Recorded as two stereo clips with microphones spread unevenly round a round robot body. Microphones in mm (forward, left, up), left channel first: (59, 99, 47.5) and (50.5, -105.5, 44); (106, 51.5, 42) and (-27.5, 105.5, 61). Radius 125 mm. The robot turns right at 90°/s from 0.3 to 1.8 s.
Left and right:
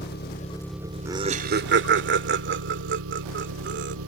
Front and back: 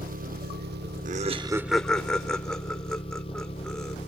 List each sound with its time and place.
0.0 s an engine running: 140° left; by 4.1 s 85° right
1.1 s laughter: 170° right; by 4.0 s 100° right